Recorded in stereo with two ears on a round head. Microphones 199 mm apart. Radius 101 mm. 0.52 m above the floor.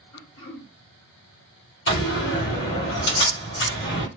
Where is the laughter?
No laughter in this recording.